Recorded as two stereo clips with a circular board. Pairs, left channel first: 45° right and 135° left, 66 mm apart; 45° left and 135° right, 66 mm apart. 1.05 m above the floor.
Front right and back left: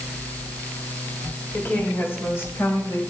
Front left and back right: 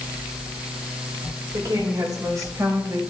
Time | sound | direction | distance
1.5 | a woman speaking | 110° right | 4 m